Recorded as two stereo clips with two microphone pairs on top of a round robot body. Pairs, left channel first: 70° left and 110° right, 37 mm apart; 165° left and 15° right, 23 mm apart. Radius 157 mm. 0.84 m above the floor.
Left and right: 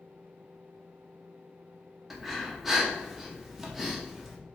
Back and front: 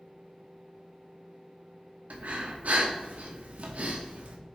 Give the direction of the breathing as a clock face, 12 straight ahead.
1 o'clock.